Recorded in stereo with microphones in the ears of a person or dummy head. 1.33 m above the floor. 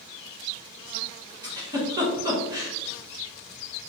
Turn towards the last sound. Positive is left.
turn(degrees=-20)  # may be behind; listen again after turning